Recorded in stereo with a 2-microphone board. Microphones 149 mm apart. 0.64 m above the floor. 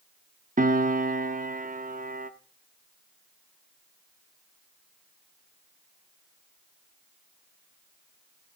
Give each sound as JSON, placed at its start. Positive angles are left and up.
{"t": 0.6, "sound": "a piano", "side_deg": -65, "distance_m": 0.6}